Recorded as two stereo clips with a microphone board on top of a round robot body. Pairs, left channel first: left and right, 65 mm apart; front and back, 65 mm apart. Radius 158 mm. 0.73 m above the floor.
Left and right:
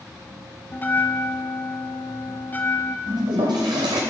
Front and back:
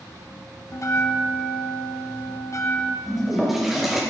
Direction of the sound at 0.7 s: 30° left.